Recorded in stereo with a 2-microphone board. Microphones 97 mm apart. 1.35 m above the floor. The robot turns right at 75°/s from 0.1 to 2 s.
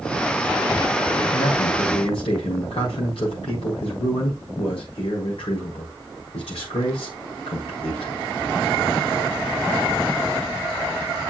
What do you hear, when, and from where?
1.3 s a man speaking: 60° left, 4 m; by 8.1 s 110° left, 4 m